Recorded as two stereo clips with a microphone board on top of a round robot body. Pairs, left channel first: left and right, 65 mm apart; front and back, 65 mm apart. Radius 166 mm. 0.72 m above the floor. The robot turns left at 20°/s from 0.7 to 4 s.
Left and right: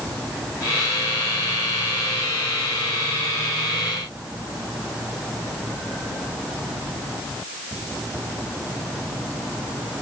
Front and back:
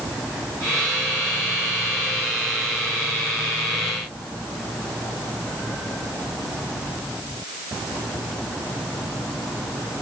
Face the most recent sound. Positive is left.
No sound to turn to.